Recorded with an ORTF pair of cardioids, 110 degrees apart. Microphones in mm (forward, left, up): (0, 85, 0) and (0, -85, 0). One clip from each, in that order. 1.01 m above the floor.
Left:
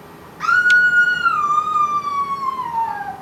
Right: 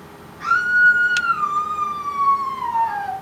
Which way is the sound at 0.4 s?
60° left.